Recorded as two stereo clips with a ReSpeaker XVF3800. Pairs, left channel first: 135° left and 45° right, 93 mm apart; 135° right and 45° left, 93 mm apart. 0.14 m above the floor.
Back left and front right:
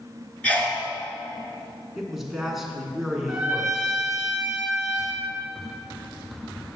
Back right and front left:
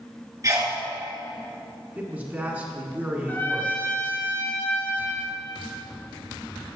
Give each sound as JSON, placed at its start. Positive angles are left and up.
{"t": 0.4, "sound": "a sneeze", "azimuth_deg": 65, "distance_m": 1.7}
{"t": 1.9, "sound": "a man speaking", "azimuth_deg": 40, "distance_m": 1.1}
{"t": 3.3, "sound": "a trumpet", "azimuth_deg": -120, "distance_m": 1.6}